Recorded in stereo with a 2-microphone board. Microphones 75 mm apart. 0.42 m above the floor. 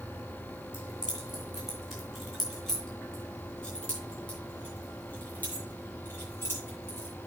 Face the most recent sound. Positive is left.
turn(degrees=30)  # may be behind; listen again after turning